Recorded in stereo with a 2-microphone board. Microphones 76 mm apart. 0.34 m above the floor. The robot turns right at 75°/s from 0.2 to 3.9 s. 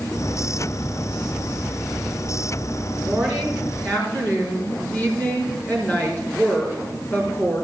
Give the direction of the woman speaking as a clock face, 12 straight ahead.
1 o'clock.